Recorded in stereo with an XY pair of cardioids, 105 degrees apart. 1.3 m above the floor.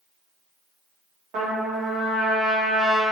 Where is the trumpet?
65° right, 1.1 m.